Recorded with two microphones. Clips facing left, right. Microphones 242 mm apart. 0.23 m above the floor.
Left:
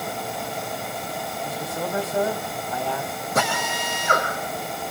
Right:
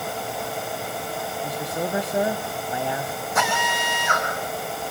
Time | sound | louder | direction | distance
1.4 | a man speaking | right 2 dB | 15° right (ahead or behind) | 1.0 m
3.4 | a drill | left 1 dB | 40° left (ahead or behind) | 7 m